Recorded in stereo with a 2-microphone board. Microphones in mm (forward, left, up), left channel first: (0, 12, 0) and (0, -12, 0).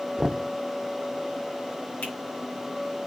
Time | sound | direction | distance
0.2 | knocking | 20° right (ahead or behind) | 0.6 m
2.0 | a finger snap | 70° left (ahead or behind) | 5 m